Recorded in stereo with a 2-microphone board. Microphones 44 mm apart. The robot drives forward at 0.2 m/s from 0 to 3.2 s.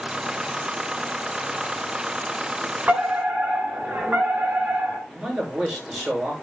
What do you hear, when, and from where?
2.9 s a fire alarm: 30° right (ahead or behind), 6 m
5.1 s a man speaking: 10° right (ahead or behind), 6.5 m